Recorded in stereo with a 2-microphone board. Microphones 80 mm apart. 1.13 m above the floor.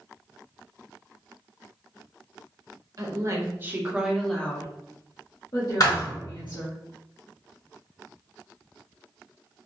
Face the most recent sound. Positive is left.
turn(degrees=50)  # may be behind; listen again after turning